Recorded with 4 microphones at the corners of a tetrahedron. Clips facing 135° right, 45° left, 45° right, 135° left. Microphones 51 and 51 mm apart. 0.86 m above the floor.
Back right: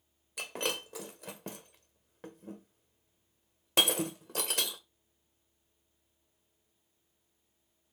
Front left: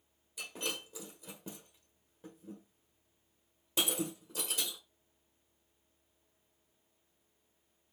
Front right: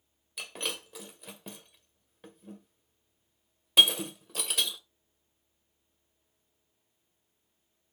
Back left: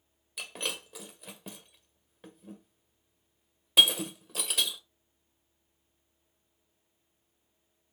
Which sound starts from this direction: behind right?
Breaking glass, at 0.4 s.